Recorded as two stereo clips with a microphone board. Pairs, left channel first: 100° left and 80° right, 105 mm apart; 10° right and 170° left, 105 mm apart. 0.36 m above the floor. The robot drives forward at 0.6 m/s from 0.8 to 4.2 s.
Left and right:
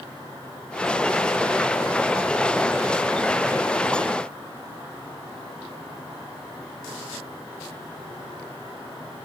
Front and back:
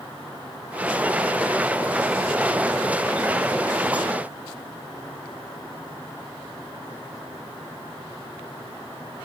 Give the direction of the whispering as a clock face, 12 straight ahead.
No whispering in this recording.